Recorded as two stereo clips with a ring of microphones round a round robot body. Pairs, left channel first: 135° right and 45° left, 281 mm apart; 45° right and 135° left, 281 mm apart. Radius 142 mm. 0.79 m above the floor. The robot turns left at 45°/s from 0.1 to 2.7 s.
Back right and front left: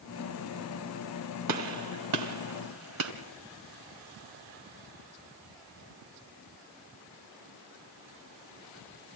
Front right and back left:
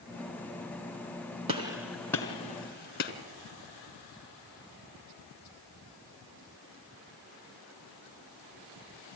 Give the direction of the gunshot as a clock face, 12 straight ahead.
10 o'clock.